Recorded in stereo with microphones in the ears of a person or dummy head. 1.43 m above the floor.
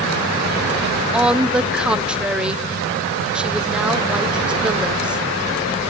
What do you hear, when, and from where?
1.1 s a woman speaking: centre (ahead or behind), 0.6 m